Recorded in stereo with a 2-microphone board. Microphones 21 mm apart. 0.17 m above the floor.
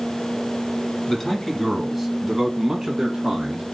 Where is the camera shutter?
I don't hear a camera shutter.